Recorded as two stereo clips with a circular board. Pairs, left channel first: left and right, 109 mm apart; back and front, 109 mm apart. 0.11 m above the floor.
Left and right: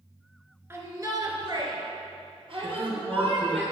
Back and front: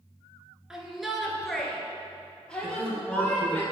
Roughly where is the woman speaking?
Ahead right.